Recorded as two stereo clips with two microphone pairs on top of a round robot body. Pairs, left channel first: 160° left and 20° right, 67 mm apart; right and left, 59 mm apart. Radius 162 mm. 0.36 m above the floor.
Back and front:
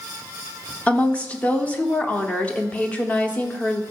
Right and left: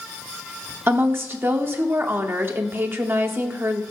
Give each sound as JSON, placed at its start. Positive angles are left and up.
{"t": 0.9, "sound": "a woman speaking", "azimuth_deg": 95, "distance_m": 1.1}